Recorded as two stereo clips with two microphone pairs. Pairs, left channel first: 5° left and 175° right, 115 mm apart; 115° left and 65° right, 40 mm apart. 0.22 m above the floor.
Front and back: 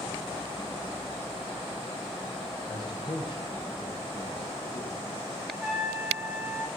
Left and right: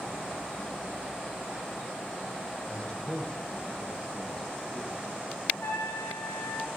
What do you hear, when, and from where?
2.7 s a man speaking: 55° left, 9.5 m; by 5.0 s 40° left, 9 m
5.5 s a trumpet: 110° left, 5 m